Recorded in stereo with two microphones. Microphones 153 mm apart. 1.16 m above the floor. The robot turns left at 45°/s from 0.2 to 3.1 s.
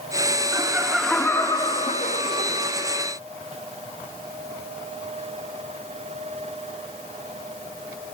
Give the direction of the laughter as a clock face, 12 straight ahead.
5 o'clock.